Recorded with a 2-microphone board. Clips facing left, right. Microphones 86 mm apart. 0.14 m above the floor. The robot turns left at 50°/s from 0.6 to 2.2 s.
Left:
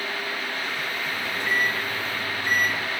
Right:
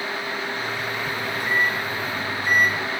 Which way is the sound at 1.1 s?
40° left.